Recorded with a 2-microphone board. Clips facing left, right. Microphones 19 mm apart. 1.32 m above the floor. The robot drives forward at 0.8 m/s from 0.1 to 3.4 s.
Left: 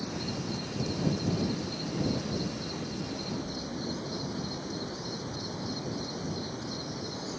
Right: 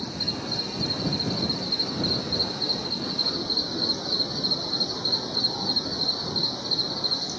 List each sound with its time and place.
0.0 s an insect: 50° right (ahead or behind); by 7.4 s 65° right (ahead or behind)